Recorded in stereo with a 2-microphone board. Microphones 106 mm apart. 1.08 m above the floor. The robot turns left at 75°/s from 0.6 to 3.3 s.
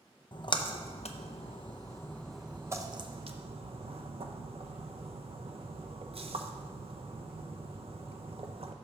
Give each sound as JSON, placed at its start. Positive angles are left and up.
{"t": 0.3, "sound": "a splash", "side_deg": 45, "distance_m": 0.5}